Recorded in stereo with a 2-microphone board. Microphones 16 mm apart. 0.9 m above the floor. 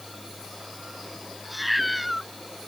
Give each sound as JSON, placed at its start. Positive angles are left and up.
{"t": 1.4, "sound": "a cat meowing", "side_deg": 0}